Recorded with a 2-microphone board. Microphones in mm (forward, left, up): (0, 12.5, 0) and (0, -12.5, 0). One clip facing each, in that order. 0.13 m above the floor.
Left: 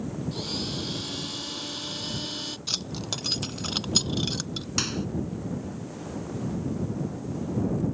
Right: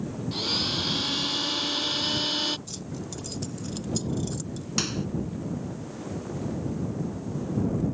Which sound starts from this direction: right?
A blender, at 0.3 s.